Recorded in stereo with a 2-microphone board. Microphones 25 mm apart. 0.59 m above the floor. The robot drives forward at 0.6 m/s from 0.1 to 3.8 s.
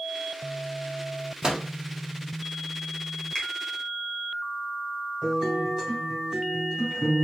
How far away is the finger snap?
About 1.5 m.